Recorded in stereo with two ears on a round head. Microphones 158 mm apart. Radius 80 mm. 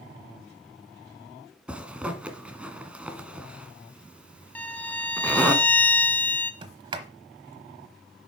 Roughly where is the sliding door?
Right.